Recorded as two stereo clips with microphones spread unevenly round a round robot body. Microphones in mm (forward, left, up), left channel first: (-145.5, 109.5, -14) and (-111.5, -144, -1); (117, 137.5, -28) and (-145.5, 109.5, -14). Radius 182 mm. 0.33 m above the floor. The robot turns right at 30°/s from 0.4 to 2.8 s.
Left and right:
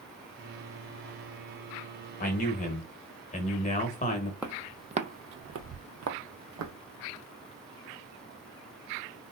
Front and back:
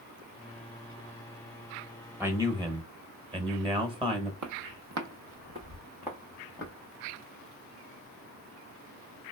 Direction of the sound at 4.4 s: 165° right.